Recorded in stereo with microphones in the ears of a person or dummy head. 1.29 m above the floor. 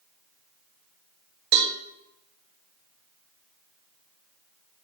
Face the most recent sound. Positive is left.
turn(degrees=-55)  # may be behind; listen again after turning